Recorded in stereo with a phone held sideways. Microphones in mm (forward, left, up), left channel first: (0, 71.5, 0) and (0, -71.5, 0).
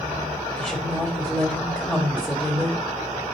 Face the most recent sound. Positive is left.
turn(degrees=10)  # may be behind; listen again after turning